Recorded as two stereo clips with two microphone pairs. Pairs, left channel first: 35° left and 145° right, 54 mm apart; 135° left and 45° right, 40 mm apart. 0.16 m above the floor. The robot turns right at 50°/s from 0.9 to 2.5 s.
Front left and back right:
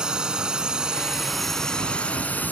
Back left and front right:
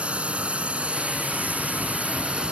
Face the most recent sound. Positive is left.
turn(degrees=0)